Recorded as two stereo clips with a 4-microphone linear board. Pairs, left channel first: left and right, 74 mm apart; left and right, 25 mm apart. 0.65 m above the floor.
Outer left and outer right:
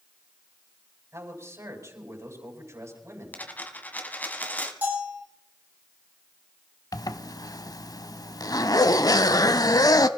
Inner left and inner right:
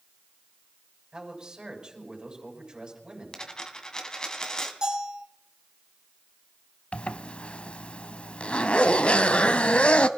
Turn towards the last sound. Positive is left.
turn(degrees=55)  # may be behind; listen again after turning